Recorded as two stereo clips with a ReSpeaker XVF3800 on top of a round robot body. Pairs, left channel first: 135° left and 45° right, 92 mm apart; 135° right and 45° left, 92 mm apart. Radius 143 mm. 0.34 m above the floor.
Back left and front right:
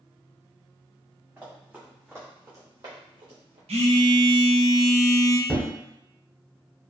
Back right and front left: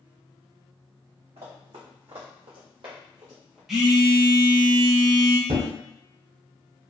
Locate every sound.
1.4 s running footsteps: 30° left, 1.5 m; by 3.6 s 35° right, 0.5 m
3.7 s a phone buzzing: 40° right, 0.7 m
5.5 s a thud: 40° left, 0.6 m